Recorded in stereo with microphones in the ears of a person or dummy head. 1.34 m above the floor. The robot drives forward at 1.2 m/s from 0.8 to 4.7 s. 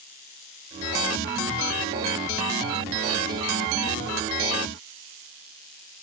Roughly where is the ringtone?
No ringtone in this recording.